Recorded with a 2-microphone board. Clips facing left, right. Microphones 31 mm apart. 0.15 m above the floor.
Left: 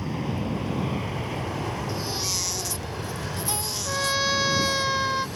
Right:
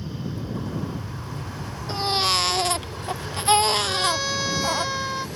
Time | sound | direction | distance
0.0 | an aircraft | 65° left (ahead or behind) | ?
1.9 | a baby crying | 50° right (ahead or behind) | ?
3.9 | a trumpet | 10° left (ahead or behind) | ?